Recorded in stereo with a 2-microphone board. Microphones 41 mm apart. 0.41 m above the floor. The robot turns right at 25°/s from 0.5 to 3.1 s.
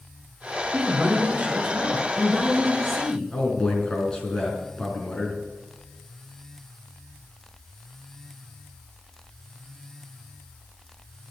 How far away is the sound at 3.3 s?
About 4.5 m.